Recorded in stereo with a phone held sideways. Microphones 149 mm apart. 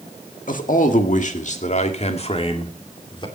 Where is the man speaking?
65° left (ahead or behind), 1.7 m; by 3.3 s 35° left (ahead or behind), 2 m.